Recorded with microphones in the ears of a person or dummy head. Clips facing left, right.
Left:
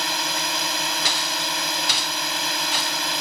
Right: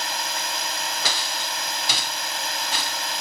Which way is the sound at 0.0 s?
70° left (ahead or behind).